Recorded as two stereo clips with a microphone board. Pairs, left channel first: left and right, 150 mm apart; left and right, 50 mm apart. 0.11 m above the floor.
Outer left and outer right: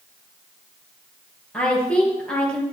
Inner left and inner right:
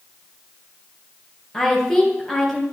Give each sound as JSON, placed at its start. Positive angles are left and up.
{"t": 1.5, "sound": "a woman speaking", "side_deg": 5, "distance_m": 2.5}